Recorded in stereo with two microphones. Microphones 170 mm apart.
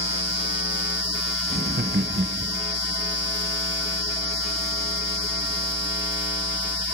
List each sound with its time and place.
1.5 s laughter: 75° right (ahead or behind), 1.3 m; by 2.6 s 55° right (ahead or behind), 0.9 m